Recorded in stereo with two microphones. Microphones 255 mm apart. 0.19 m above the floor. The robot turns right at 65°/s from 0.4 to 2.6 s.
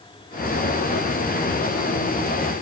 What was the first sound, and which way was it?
Only background noise.